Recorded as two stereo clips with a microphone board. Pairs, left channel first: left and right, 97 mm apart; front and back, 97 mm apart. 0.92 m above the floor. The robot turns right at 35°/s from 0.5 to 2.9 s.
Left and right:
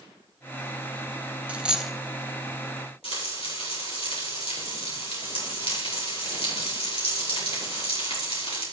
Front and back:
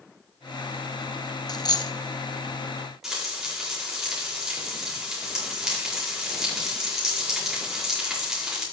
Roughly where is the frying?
Left.